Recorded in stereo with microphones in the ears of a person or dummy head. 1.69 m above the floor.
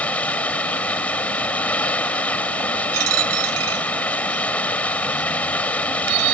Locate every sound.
0.0 s running water: 10° left (ahead or behind)
2.9 s a dropped coin: 85° right